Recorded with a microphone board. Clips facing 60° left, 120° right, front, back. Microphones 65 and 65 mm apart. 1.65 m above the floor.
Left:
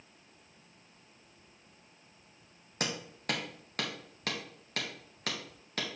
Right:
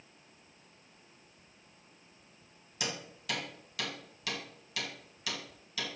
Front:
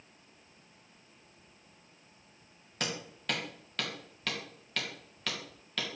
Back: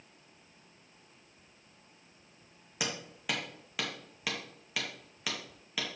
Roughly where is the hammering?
Left.